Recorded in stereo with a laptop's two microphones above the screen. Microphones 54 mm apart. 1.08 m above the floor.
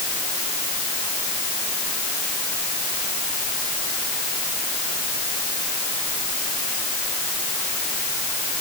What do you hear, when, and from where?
Only background noise.